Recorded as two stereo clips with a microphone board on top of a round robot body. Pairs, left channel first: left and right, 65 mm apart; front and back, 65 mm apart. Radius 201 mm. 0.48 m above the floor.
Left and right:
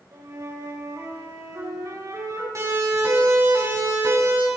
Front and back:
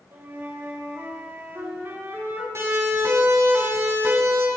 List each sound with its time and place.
0.1 s a flute: 125° right, 9.5 m
2.5 s a siren: 130° right, 8.5 m; by 4.5 s 125° right, 8 m